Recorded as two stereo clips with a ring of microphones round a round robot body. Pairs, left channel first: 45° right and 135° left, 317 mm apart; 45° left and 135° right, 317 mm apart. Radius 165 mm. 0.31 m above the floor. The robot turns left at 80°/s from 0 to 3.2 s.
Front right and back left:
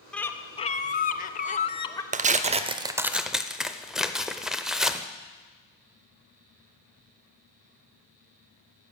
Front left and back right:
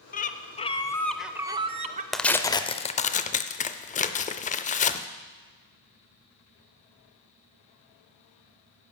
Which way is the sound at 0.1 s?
40° left.